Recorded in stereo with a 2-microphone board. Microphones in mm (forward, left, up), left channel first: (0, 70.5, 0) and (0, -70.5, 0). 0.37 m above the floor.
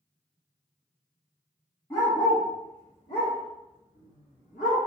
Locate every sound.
1.9 s a dog barking: 15° left (ahead or behind), 1.4 m; by 4.8 s 75° left (ahead or behind), 1.6 m